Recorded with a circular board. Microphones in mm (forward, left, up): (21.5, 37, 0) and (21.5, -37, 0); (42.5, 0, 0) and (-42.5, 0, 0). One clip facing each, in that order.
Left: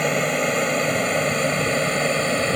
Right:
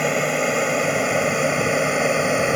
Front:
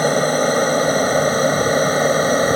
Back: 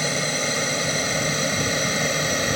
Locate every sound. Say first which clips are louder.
0.0 s an aircraft: right 1 dB, front 10 dB; 5° right; by 2.6 s 20° right